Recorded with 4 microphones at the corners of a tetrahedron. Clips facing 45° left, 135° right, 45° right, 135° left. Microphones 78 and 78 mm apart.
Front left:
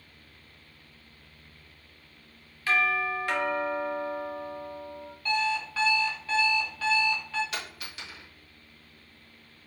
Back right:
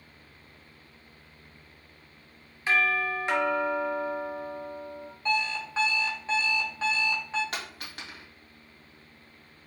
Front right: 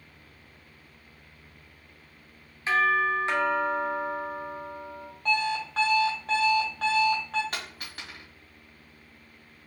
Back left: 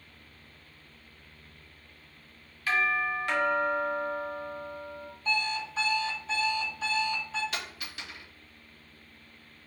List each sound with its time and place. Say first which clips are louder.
2.7 s a doorbell: even, front right 4 dB; 85° right, 1.6 m
5.2 s an alarm clock: front left 1 dB, front right 4 dB; 65° right, 1.5 m
7.5 s a dropped coin: even, front right 1 dB; 90° right, 2 m